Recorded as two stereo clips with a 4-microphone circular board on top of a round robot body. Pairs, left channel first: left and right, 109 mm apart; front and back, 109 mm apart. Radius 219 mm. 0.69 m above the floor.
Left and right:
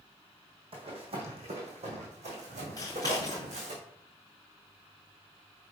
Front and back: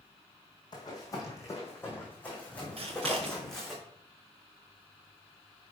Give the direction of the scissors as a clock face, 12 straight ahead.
7 o'clock.